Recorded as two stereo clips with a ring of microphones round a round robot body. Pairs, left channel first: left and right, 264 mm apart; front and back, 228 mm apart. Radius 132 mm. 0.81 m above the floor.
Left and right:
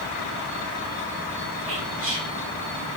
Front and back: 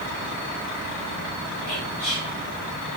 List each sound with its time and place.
1.7 s whispering: 35° right, 0.9 m